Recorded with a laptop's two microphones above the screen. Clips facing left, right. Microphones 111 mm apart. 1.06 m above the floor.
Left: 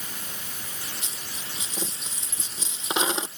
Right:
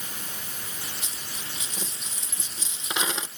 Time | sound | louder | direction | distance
1.0 | a dropped coin | even | 30° left (ahead or behind) | ?